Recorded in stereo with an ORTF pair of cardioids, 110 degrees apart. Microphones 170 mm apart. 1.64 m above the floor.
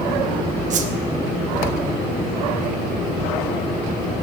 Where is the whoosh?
45° right, 1.2 m.